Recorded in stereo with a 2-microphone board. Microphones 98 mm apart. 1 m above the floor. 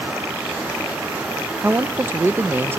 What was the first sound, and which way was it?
A man speaking, 20° right (ahead or behind).